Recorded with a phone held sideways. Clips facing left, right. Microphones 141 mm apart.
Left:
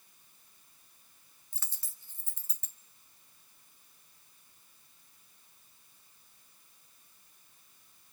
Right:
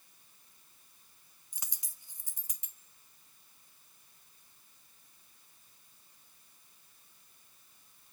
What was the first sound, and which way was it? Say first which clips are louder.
A dropped coin: right 1 dB; 15° right (ahead or behind).